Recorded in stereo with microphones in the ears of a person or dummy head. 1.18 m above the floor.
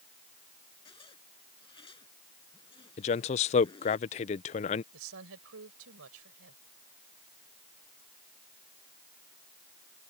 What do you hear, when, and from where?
0.8 s a zipper: 25° left (ahead or behind)
3.0 s a man speaking: 35° left (ahead or behind)
4.9 s a woman speaking: 75° right (ahead or behind)